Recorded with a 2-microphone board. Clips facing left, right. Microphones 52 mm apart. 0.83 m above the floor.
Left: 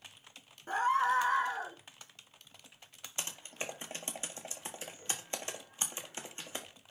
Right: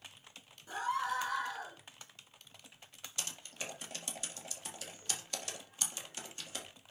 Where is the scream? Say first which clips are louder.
Left 6 dB; 40° left (ahead or behind), 1.3 m; by 1.8 s 30° left (ahead or behind), 1.5 m.